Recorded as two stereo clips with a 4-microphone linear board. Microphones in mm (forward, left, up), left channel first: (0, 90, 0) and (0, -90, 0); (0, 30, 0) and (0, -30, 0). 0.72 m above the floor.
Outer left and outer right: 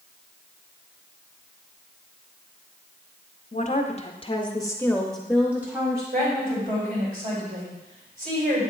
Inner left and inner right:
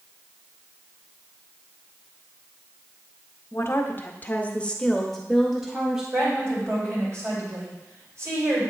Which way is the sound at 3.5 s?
45° left (ahead or behind).